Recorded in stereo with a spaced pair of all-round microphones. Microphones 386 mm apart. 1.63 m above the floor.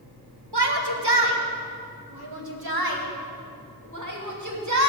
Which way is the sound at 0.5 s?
80° right.